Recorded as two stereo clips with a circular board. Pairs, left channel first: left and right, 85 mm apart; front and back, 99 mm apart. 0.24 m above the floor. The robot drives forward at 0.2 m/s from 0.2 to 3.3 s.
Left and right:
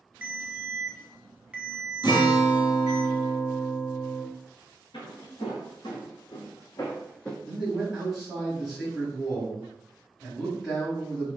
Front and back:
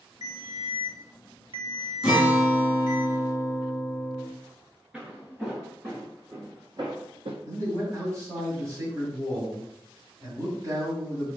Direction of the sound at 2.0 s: 95° left.